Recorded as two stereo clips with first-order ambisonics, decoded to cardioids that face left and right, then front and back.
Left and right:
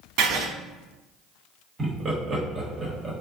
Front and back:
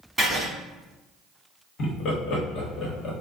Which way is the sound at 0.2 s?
95° right.